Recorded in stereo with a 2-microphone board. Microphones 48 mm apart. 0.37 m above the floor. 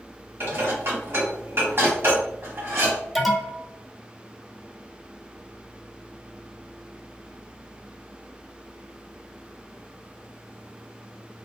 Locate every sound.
0.4 s dishes clattering: 55° right (ahead or behind), 1.8 m
3.1 s an alarm: centre (ahead or behind), 0.8 m